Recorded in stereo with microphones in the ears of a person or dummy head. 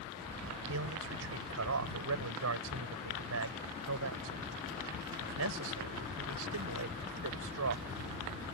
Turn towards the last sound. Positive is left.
turn(degrees=-85)